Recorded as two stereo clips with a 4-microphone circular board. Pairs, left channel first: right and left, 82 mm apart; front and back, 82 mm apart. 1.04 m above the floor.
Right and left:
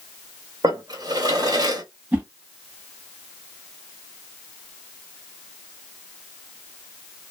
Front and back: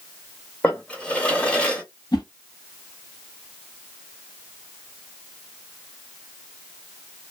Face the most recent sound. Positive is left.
turn(degrees=20)